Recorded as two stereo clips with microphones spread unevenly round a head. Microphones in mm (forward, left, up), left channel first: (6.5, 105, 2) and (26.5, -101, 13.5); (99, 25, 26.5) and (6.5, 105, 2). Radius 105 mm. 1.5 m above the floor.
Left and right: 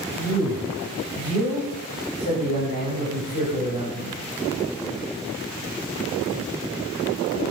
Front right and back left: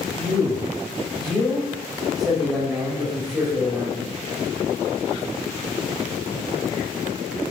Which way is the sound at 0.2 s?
50° left.